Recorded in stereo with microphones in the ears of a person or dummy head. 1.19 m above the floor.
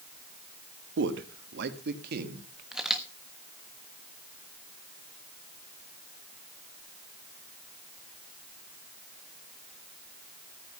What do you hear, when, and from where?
1.0 s a man speaking: 80° right, 1.6 m; by 2.6 s 65° right (ahead or behind), 2.5 m
2.7 s a camera shutter: 5° left (ahead or behind), 1.2 m